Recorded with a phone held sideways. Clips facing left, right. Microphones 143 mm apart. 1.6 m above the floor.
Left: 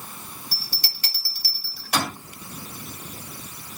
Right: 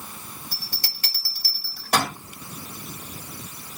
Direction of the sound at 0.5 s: 50° right (ahead or behind).